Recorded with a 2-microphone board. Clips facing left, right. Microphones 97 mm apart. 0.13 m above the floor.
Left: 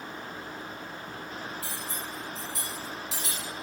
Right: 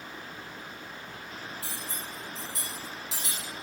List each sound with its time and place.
1.6 s cutlery clinking: 25° right (ahead or behind), 1.6 m